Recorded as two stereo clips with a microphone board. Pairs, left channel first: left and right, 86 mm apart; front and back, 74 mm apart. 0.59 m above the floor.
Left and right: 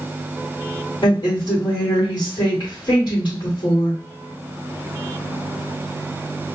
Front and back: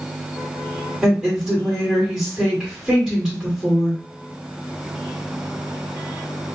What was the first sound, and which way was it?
A woman speaking, 110° left.